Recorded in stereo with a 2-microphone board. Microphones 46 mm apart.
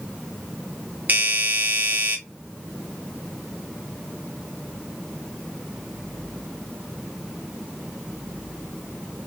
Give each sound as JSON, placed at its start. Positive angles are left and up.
{"t": 1.1, "sound": "a doorbell", "side_deg": -40, "distance_m": 1.1}